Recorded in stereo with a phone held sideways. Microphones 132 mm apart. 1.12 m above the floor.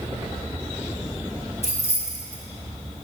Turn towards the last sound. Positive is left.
turn(degrees=50)  # may be behind; listen again after turning